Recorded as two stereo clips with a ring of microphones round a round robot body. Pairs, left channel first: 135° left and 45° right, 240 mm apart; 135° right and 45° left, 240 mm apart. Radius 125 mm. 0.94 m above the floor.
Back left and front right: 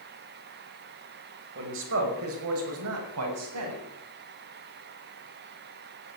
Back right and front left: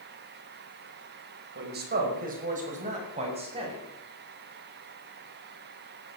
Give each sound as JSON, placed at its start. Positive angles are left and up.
{"t": 1.6, "sound": "a man speaking", "azimuth_deg": -5, "distance_m": 5.0}